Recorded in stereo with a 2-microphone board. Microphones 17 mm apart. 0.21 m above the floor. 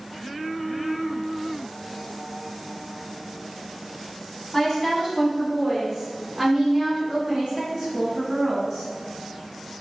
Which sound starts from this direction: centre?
A woman speaking, at 4.5 s.